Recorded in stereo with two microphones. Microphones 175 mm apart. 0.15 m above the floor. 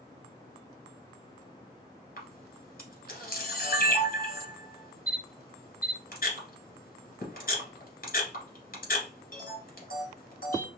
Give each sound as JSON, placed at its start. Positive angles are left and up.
{"t": 2.2, "sound": "a camera shutter", "side_deg": 55, "distance_m": 1.5}